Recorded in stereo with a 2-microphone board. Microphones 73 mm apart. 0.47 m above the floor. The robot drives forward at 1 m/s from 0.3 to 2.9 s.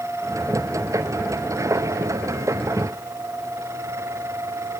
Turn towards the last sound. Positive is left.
No sound to turn to.